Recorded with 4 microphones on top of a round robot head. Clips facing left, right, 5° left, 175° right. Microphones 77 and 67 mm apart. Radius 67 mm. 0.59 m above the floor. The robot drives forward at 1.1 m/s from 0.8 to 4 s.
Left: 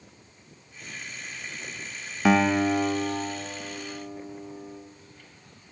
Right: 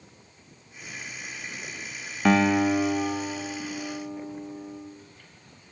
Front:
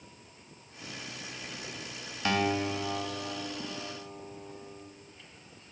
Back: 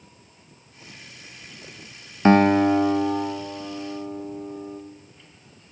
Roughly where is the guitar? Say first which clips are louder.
Even, back 13 dB; behind.